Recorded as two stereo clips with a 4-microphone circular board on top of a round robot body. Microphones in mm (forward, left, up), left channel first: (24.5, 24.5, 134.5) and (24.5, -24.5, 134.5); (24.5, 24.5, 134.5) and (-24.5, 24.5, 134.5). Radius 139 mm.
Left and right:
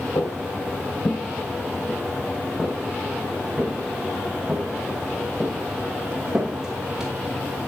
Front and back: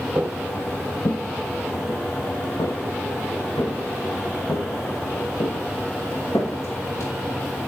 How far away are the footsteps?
About 1.2 m.